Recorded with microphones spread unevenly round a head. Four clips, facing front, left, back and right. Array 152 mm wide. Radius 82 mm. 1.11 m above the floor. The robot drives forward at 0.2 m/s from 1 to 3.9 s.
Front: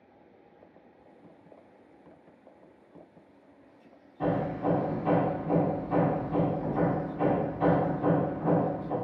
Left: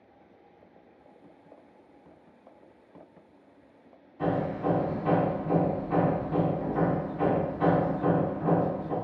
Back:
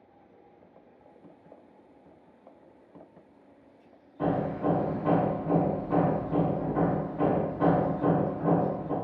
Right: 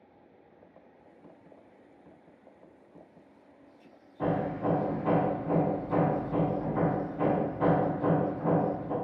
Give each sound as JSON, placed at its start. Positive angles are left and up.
{"t": 4.2, "sound": "hammering", "azimuth_deg": -175, "distance_m": 1.4}